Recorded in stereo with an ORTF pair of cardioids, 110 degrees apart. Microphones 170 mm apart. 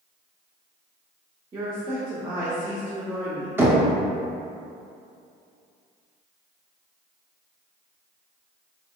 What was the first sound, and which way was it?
A woman speaking, 25° right.